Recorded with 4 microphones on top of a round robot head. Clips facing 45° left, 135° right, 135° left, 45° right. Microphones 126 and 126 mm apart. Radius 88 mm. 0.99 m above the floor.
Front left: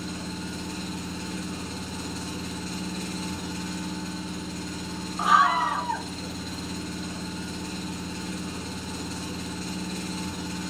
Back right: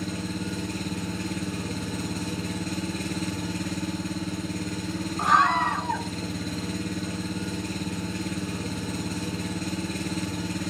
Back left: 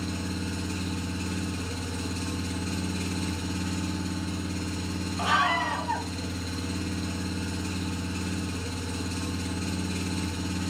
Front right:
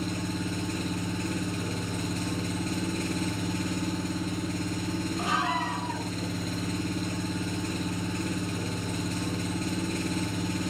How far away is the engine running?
About 6.5 m.